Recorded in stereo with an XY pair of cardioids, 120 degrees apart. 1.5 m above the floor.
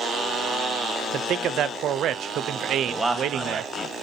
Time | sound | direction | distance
1.1 | a man speaking | 60° right | 0.5 m
2.9 | a man speaking | 15° right | 1.1 m